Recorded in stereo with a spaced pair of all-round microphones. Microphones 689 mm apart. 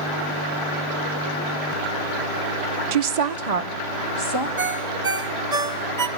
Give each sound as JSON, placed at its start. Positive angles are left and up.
{"t": 2.9, "sound": "a woman speaking", "side_deg": -80, "distance_m": 0.9}
{"t": 4.6, "sound": "a ringtone", "side_deg": -70, "distance_m": 1.3}